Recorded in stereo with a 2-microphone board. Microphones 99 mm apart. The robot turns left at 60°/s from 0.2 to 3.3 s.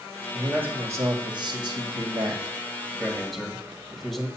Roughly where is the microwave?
I don't hear a microwave.